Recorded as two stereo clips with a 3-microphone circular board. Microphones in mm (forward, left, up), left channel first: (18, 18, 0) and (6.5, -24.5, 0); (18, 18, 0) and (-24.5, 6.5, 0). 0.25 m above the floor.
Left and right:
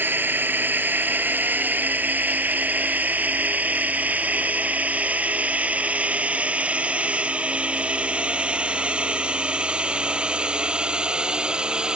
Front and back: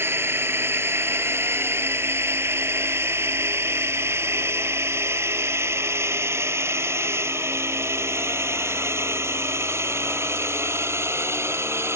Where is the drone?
145° right; by 12.0 s 175° right.